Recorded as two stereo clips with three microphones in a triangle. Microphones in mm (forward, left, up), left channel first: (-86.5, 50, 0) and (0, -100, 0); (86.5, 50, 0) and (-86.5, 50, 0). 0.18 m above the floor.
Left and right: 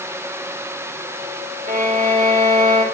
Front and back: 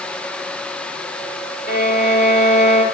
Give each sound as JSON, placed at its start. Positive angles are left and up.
{"t": 1.7, "sound": "a violin", "azimuth_deg": -20, "distance_m": 7.0}